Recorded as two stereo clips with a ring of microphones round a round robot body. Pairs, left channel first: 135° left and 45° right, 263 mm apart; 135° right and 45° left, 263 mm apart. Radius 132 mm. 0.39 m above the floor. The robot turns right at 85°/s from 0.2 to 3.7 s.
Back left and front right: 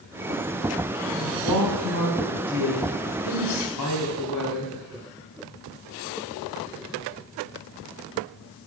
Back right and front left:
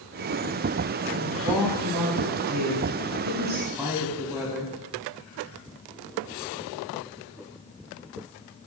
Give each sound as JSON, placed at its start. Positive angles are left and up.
{"t": 1.1, "sound": "a woman speaking", "azimuth_deg": -90, "distance_m": 3.0}